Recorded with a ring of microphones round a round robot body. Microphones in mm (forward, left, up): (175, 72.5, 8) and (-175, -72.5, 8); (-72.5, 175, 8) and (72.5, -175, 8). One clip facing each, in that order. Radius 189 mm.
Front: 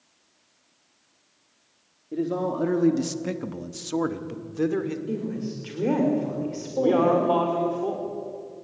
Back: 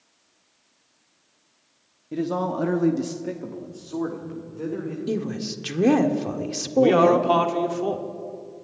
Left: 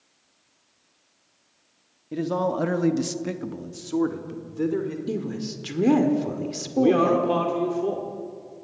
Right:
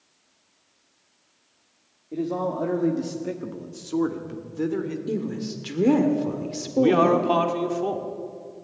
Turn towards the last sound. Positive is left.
turn(degrees=-135)